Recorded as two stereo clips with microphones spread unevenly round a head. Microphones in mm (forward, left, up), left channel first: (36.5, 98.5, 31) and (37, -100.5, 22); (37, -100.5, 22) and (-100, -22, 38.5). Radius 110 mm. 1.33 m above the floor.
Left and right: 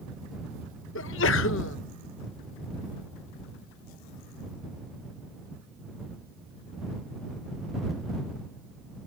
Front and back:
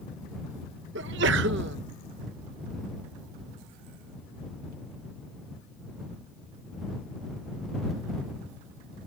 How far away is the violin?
I don't hear a violin.